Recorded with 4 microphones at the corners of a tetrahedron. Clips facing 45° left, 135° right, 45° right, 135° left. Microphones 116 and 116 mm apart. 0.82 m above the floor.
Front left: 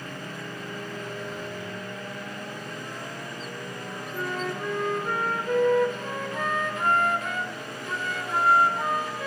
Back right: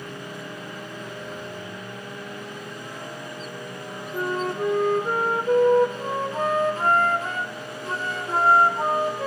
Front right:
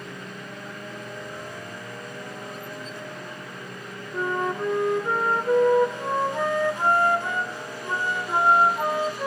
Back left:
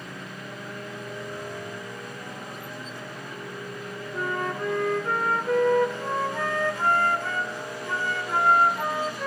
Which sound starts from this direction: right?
A flute, at 4.1 s.